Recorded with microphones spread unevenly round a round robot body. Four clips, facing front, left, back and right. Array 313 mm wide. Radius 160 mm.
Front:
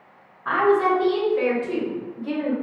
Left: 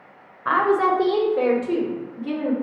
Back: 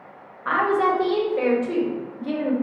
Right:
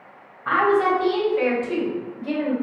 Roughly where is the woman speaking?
Left.